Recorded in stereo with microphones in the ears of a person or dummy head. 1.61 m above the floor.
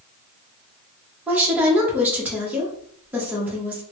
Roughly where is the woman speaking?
Centre.